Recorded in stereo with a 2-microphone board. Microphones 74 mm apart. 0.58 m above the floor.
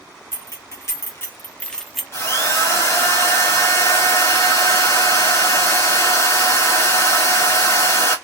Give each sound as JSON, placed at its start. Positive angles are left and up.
{"t": 0.3, "sound": "keys jangling", "side_deg": 40, "distance_m": 1.2}
{"t": 2.1, "sound": "a drill", "side_deg": 35, "distance_m": 1.0}